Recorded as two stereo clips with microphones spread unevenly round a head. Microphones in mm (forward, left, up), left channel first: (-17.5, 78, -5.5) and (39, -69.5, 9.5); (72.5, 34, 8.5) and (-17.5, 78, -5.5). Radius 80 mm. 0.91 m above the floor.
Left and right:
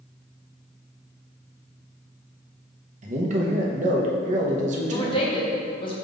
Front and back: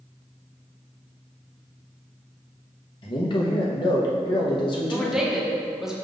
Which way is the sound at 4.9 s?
80° left.